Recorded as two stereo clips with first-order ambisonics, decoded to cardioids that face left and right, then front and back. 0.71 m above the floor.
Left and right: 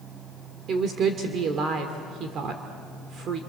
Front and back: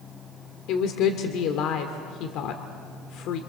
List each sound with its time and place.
0.7 s a woman speaking: 35° right, 1.7 m